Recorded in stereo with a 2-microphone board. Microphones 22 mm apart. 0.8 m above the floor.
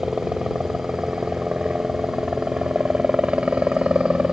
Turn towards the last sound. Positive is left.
turn(degrees=-55)  # may be behind; listen again after turning